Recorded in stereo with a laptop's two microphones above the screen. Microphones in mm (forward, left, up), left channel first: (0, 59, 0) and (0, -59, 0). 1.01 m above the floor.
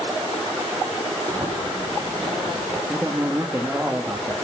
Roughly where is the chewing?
Right.